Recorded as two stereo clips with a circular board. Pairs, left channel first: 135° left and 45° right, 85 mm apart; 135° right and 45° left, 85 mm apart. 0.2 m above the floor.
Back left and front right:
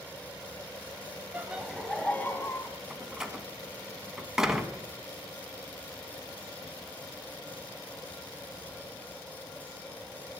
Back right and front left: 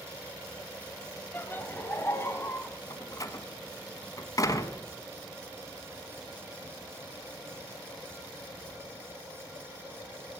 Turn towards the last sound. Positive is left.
turn(degrees=-125)